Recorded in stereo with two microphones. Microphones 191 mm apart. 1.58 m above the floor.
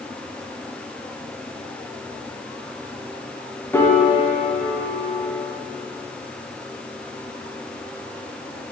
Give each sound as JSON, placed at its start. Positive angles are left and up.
{"t": 3.7, "sound": "a piano", "side_deg": 10, "distance_m": 0.7}